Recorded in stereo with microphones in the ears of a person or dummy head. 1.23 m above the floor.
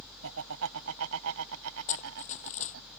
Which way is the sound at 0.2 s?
80° right.